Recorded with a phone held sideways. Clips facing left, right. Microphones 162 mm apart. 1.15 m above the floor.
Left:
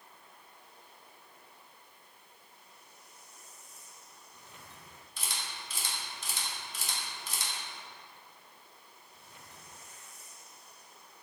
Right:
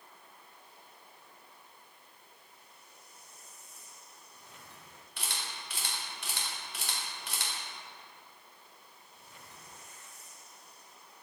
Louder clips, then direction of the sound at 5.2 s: Right 1 dB; 65° right (ahead or behind).